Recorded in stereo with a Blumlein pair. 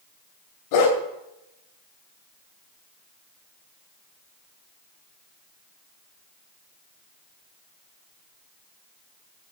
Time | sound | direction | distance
0.7 | a dog barking | 45° left | 2 m